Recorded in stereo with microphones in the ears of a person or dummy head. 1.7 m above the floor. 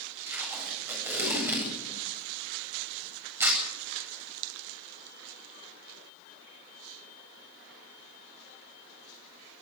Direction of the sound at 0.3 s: 15° right (ahead or behind).